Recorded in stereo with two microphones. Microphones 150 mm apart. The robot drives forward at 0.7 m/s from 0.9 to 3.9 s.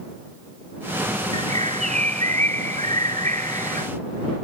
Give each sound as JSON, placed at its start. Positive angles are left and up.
{"t": 1.3, "sound": "a bird", "side_deg": -50}